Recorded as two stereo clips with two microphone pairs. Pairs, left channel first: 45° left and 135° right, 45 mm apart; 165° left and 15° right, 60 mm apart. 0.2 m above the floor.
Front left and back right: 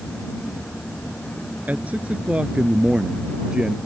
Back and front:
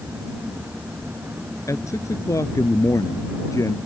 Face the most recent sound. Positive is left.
turn(degrees=155)